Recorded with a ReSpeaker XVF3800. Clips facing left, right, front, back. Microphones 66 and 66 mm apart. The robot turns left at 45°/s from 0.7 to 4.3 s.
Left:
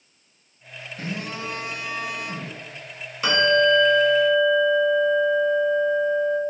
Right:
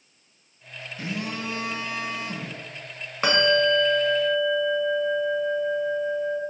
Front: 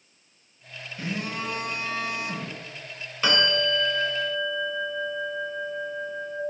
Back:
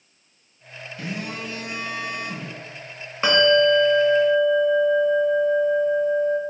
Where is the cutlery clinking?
I don't hear cutlery clinking.